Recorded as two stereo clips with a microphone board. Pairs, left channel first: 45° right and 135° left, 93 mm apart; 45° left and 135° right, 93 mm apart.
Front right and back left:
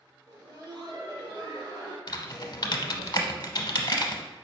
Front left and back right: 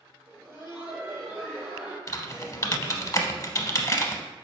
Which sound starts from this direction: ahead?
Typing on a keyboard, at 2.1 s.